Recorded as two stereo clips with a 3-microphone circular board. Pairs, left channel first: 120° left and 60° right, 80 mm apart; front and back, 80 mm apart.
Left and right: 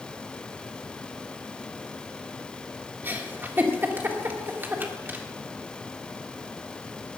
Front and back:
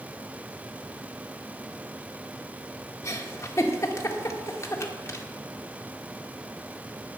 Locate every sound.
3.0 s a giggle: 15° right, 1.6 m